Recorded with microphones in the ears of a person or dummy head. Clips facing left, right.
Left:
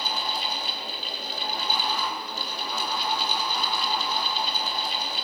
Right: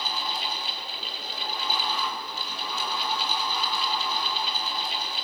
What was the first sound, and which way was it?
A fan, 35° left (ahead or behind).